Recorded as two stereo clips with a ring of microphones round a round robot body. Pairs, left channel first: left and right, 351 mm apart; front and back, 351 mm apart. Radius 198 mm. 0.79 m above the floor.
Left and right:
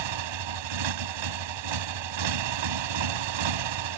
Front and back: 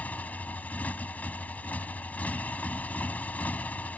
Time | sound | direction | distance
0.0 | a motorcycle | 85° right | ?